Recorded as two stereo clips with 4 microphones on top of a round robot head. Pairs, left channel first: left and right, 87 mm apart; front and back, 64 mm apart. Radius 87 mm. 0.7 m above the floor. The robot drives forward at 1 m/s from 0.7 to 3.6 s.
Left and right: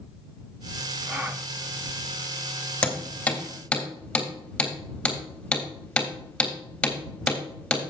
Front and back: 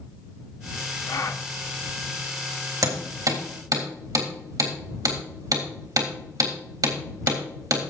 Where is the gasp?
20° right, 1.0 m; by 1.5 s 30° right, 0.7 m.